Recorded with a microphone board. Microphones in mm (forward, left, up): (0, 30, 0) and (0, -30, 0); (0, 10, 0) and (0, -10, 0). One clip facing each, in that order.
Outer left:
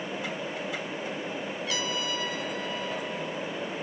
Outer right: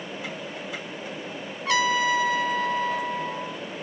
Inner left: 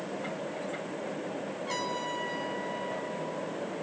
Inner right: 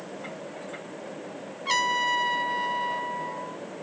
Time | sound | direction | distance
1.6 | a trumpet | 75° right (ahead or behind) | 1.2 m